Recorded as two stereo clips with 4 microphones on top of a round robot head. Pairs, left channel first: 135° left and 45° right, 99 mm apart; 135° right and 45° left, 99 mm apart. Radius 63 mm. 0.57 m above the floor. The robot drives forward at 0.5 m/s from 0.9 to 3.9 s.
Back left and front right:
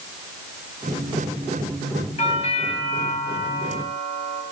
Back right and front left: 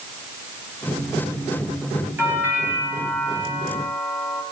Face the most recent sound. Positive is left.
turn(degrees=120)